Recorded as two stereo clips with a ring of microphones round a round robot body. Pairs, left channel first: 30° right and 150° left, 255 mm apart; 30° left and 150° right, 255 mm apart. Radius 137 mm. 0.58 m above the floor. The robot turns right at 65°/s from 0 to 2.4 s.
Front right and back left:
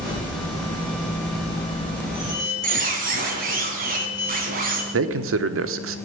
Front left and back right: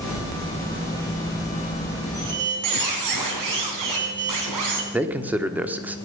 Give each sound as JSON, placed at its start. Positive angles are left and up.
{"t": 2.1, "sound": "a squeak", "azimuth_deg": -170, "distance_m": 3.0}
{"t": 4.9, "sound": "a man speaking", "azimuth_deg": 125, "distance_m": 1.1}